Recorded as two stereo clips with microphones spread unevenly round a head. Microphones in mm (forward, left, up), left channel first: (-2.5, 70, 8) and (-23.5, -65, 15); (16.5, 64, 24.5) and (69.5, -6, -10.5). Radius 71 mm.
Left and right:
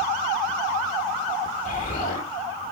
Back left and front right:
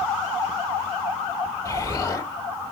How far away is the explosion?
About 2.0 m.